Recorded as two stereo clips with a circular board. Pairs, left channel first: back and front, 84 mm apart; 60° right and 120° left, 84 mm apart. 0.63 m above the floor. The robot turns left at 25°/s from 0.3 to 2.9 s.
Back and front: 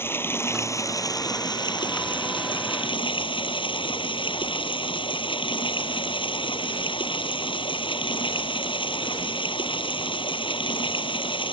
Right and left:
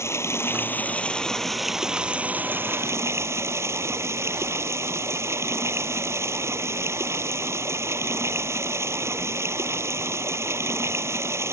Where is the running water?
120° right; by 11.5 s 175° left.